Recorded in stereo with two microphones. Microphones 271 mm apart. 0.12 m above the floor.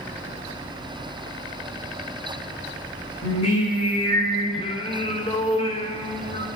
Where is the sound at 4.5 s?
20° left (ahead or behind), 2.5 m.